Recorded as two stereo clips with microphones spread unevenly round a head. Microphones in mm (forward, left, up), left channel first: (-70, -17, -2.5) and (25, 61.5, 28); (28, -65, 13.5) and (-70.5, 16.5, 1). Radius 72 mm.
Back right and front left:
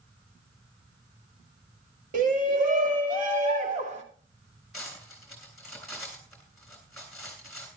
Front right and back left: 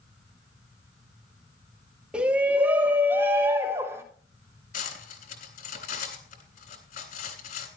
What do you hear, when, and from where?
2.1 s a shout: 55° left, 3 m; by 4.0 s 70° left, 4 m
4.7 s cutlery clinking: 50° right, 3.5 m